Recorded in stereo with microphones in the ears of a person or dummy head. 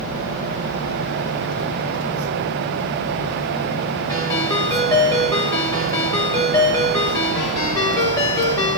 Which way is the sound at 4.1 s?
20° left (ahead or behind).